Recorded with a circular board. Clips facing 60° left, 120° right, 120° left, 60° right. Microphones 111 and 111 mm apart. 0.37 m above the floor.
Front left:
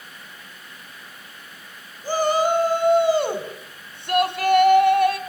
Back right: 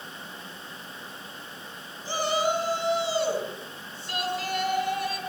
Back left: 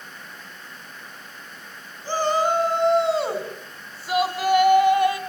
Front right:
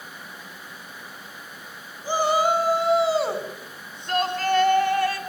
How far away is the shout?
About 3.5 m.